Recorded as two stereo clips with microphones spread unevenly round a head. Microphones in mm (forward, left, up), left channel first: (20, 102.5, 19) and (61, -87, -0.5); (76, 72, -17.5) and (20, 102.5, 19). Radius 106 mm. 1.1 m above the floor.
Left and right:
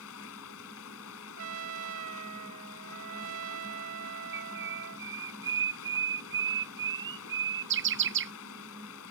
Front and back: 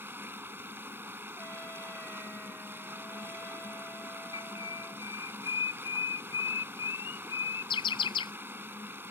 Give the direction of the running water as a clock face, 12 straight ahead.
9 o'clock.